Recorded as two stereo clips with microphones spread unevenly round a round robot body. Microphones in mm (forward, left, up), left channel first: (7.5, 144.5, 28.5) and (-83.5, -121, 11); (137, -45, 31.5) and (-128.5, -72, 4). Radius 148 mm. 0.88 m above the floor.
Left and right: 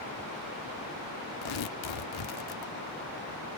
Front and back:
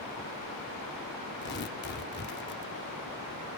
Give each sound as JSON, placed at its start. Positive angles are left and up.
{"t": 1.4, "sound": "tearing paper", "azimuth_deg": 65}